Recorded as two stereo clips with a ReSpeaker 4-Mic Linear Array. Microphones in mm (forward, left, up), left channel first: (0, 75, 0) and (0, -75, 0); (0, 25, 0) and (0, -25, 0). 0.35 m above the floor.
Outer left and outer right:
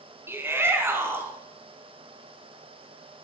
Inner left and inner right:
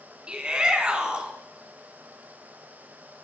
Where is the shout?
15° right (ahead or behind), 3 m.